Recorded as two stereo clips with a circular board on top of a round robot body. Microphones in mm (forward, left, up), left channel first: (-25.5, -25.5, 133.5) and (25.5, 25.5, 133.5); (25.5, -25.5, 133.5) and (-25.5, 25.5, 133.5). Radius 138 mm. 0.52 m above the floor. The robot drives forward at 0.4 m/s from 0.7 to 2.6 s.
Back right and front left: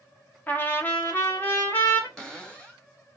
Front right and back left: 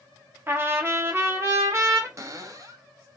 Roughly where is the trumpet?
Behind.